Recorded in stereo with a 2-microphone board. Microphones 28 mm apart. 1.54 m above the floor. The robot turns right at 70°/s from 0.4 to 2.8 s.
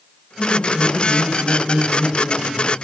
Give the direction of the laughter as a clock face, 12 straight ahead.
6 o'clock.